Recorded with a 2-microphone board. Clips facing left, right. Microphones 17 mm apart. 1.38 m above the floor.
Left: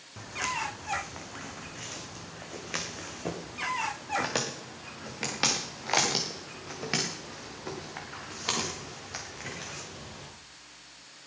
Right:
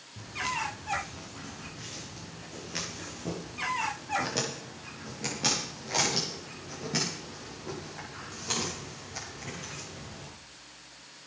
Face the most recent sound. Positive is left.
turn(degrees=65)  # may be behind; listen again after turning